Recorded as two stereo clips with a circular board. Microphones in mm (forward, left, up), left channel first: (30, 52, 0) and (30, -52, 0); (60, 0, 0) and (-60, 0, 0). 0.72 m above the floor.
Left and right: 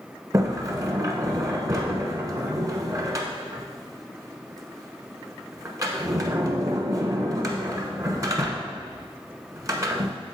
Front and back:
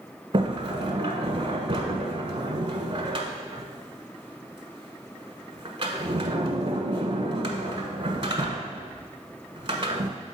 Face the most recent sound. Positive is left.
turn(degrees=-140)